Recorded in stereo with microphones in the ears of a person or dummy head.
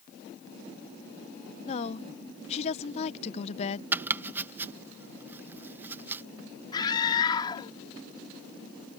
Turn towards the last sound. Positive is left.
turn(degrees=25)  # may be behind; listen again after turning